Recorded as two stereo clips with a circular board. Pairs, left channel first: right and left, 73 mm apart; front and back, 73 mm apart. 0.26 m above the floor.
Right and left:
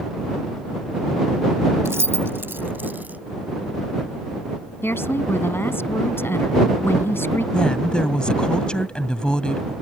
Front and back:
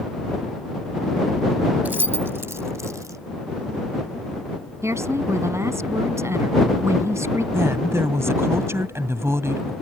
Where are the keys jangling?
125° left; by 3.2 s 155° left.